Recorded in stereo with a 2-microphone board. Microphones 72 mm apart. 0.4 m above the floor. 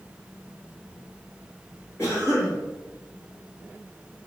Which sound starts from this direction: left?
A cough, at 2.0 s.